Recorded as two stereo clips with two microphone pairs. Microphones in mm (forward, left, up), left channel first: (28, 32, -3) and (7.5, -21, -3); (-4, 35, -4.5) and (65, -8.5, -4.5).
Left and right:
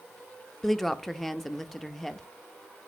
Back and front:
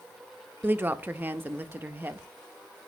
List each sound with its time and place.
0.6 s a woman speaking: 15° right, 0.5 m